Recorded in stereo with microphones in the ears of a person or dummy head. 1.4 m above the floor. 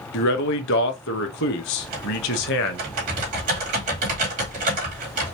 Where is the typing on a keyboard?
45° right (ahead or behind), 2.5 m.